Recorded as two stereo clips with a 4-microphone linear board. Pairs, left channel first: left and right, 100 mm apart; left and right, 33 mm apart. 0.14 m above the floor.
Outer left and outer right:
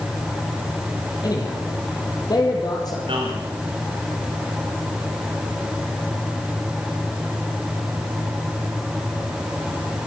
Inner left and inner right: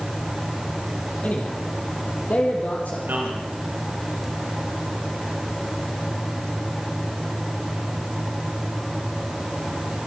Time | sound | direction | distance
1.2 | a man speaking | 45° left (ahead or behind) | 4.5 m
3.1 | a man speaking | 65° right (ahead or behind) | 7 m